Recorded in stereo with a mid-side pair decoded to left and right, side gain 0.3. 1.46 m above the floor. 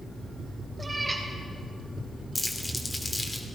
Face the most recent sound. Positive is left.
turn(degrees=25)